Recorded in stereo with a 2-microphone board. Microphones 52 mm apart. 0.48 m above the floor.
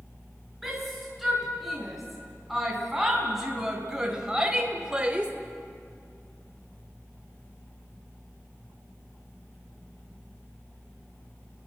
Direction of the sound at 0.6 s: Centre (ahead or behind).